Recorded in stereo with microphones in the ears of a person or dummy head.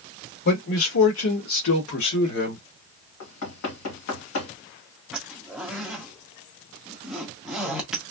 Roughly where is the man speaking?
Left.